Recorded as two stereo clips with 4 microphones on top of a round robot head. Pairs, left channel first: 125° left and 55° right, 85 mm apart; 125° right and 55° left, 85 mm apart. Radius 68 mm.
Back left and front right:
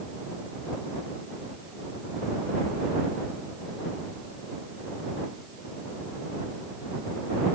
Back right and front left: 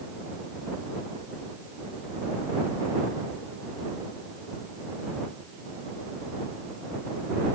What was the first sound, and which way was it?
Only background noise.